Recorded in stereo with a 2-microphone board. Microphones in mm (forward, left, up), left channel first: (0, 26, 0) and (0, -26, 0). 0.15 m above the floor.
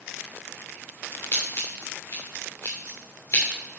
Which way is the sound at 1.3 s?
60° left (ahead or behind).